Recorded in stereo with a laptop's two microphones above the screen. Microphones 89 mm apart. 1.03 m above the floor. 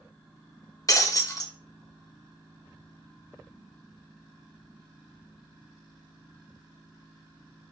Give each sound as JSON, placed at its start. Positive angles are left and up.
{"t": 0.9, "sound": "breaking glass", "side_deg": 40, "distance_m": 1.0}